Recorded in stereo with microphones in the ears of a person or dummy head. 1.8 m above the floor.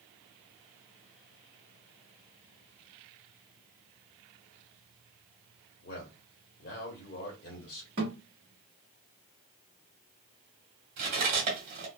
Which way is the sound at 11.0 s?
35° right (ahead or behind).